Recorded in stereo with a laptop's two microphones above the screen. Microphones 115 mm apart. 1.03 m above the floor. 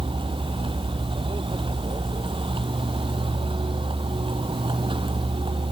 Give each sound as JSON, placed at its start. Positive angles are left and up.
{"t": 0.0, "sound": "a vehicle", "side_deg": -50}